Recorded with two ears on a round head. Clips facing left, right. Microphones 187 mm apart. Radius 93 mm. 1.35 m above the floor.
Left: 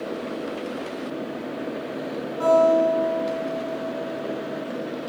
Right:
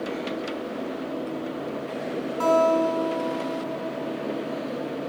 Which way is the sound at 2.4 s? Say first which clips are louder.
Left 3 dB; 70° right (ahead or behind).